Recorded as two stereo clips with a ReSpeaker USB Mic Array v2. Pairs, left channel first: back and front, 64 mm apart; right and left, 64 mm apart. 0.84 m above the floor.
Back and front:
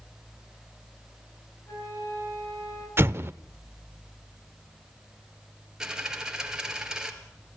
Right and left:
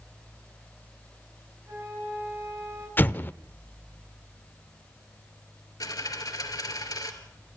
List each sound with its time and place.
1.7 s a flute: 140° left, 8 m
3.0 s an explosion: 35° right, 0.6 m
5.8 s a dropped coin: 80° right, 2 m